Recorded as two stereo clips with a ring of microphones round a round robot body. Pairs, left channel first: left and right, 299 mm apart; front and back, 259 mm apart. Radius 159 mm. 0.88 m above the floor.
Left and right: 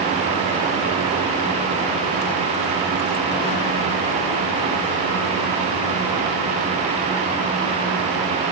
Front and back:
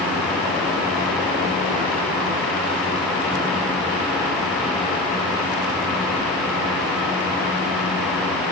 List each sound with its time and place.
Only background noise.